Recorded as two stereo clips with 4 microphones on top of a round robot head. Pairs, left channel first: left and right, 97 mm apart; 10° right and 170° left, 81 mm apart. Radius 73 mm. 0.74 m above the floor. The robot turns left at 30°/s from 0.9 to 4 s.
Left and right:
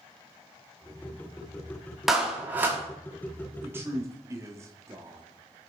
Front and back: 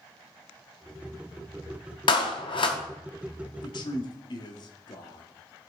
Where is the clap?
5° right, 1.2 m; by 2.8 s 25° right, 1.2 m.